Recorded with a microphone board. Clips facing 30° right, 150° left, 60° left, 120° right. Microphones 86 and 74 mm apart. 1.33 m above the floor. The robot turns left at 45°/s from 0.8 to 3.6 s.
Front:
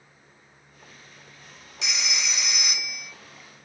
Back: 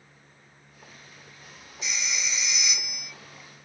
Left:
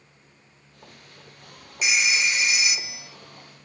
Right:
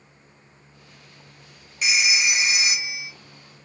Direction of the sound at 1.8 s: 25° right.